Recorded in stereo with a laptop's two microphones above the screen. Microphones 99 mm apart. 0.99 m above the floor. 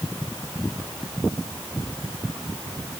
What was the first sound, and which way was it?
Only background noise.